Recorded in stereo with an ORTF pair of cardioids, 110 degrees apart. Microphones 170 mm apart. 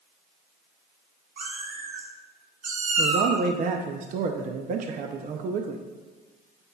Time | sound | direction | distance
1.4 | a cat meowing | 65° right | 2 m
3.0 | a man speaking | 50° right | 0.6 m